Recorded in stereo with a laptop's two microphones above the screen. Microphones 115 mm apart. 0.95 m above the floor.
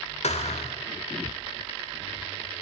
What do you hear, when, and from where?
0.2 s a thud: 75° left (ahead or behind), 1.8 m